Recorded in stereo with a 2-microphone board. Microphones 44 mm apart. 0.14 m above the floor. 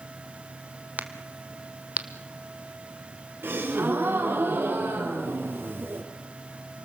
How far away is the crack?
About 1.3 m.